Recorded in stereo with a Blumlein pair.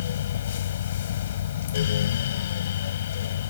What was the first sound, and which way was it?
A fan, 60° left.